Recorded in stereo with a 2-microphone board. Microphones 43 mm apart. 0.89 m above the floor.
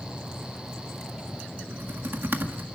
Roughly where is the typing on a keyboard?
Right.